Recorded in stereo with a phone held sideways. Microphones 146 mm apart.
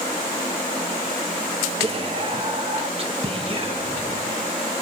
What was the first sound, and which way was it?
Whispering, 40° right (ahead or behind).